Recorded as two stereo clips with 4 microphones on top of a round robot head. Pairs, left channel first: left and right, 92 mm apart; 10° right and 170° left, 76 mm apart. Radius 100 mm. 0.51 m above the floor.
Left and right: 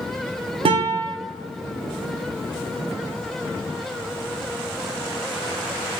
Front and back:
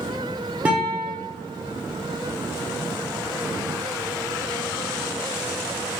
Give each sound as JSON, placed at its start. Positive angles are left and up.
{"t": 0.7, "sound": "a guitar", "azimuth_deg": -115, "distance_m": 0.6}